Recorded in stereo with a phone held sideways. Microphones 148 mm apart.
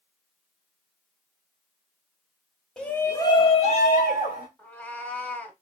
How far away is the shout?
About 1.1 m.